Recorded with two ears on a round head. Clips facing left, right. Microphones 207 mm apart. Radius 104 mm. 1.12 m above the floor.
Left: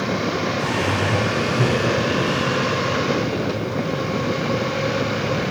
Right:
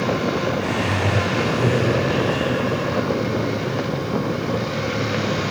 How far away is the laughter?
About 9.5 m.